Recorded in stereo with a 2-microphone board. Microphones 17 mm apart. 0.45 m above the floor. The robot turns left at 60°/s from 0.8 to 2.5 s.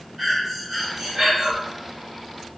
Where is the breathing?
25° right, 1.3 m; by 1.5 s 70° right, 1.3 m.